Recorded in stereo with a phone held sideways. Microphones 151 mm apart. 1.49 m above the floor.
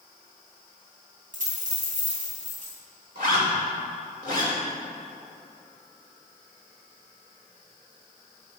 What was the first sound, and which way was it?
A dropped coin, 60° right (ahead or behind).